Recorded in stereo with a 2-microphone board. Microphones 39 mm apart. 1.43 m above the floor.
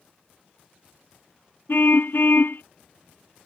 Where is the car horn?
65° left (ahead or behind).